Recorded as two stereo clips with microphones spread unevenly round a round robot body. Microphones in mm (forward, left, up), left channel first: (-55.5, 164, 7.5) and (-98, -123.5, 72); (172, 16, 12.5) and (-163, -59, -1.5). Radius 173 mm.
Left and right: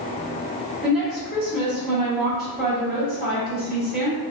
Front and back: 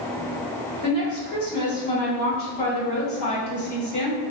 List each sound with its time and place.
0.8 s a woman speaking: straight ahead, 1.3 m